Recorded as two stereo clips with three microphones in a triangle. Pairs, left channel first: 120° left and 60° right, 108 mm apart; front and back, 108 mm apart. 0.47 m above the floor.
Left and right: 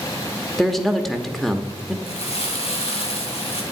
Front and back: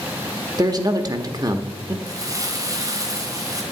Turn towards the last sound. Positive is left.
turn(degrees=125)